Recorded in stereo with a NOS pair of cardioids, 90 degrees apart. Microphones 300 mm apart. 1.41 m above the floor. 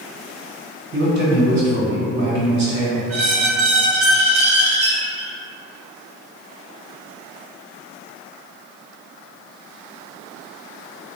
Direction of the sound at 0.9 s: 65° right.